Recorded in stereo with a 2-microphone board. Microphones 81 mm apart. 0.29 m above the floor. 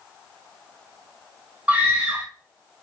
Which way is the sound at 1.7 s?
20° right (ahead or behind).